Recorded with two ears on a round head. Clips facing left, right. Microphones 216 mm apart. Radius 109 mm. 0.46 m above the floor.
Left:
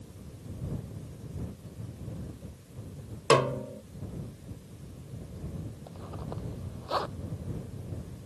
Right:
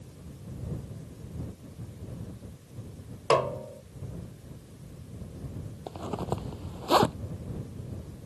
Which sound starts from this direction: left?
A snare drum, at 3.3 s.